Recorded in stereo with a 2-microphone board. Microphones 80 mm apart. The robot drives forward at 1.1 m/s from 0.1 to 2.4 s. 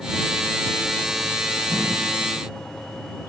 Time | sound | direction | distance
1.7 | a whoosh | 45° left (ahead or behind) | 2.5 m